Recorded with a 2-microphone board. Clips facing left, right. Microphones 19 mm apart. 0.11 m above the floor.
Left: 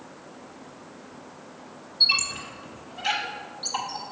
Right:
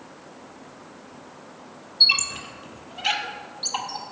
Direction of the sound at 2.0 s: 25° right (ahead or behind).